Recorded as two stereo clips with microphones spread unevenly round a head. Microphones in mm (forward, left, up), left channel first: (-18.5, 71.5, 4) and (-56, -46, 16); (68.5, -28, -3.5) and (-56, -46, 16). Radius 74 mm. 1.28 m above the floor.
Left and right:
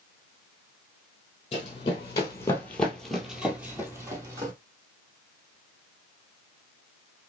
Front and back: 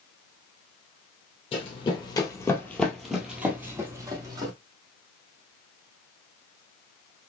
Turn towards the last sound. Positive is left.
turn(degrees=-145)